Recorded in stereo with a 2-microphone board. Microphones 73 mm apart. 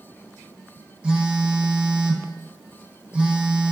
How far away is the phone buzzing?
About 1.1 m.